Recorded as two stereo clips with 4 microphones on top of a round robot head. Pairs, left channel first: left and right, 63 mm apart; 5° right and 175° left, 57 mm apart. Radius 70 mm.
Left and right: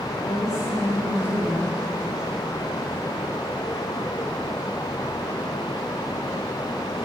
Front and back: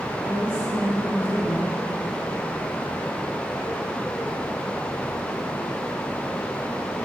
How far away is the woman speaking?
About 4.5 m.